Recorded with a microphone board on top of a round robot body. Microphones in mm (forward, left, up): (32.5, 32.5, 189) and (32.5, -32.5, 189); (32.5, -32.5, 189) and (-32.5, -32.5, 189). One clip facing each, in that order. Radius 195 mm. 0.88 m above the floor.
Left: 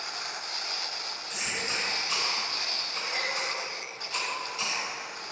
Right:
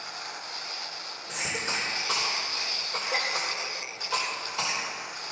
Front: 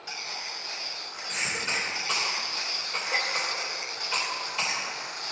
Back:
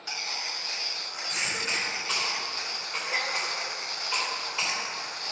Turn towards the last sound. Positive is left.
turn(degrees=-90)